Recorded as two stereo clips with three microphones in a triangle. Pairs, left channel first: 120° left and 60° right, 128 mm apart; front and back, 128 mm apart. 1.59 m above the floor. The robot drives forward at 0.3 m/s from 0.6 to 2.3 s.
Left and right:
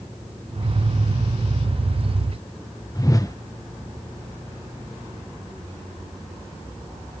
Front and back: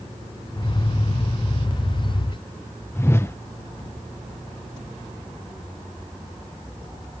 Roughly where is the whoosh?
Ahead left.